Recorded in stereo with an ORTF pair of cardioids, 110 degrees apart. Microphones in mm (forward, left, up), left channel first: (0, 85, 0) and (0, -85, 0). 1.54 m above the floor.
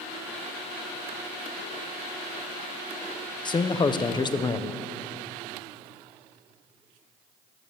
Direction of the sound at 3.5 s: 25° left.